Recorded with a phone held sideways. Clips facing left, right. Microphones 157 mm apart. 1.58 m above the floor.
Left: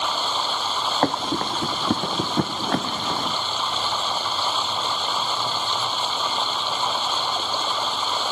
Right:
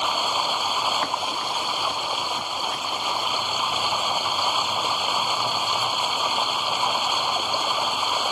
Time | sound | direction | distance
0.0 | running water | 10° right (ahead or behind) | ?
1.0 | running footsteps | 50° left (ahead or behind) | ?